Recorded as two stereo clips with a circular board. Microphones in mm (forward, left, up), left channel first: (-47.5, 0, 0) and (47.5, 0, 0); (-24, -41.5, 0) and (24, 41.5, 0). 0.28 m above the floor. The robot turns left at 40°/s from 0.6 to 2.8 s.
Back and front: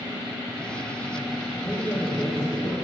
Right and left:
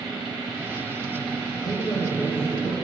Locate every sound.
1.6 s a man speaking: 110° right, 7 m; by 2.9 s 160° right, 7 m